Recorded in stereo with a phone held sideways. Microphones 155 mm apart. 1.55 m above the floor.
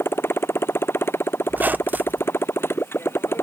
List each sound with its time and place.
0.0 s a motorcycle: 15° left (ahead or behind)
1.5 s a squeak: 10° right (ahead or behind)